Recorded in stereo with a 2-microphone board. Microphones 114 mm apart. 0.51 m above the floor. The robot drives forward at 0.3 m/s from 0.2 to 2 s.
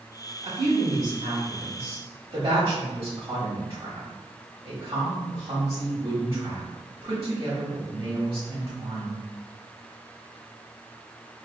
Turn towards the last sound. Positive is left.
turn(degrees=-30)  # may be behind; listen again after turning